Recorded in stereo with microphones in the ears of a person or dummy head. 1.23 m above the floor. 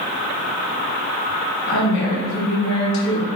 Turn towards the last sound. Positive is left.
turn(degrees=65)  # may be behind; listen again after turning